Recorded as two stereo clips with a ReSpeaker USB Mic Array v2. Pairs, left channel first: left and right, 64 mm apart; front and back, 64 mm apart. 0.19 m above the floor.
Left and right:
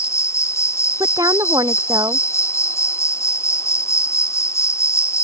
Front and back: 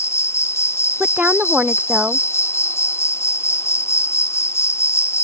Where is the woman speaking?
110° right.